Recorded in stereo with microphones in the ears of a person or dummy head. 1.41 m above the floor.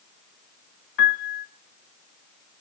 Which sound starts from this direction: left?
A piano, at 1.0 s.